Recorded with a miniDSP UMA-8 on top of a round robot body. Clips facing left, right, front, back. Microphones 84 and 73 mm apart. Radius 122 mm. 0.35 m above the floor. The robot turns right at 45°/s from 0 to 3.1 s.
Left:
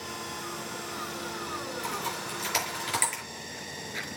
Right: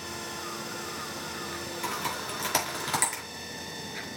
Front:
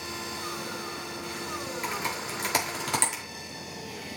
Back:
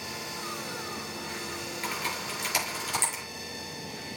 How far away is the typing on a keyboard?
About 5.5 m.